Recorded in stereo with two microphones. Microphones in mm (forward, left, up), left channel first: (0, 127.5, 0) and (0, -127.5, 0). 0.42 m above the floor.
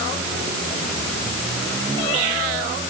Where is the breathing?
I don't hear breathing.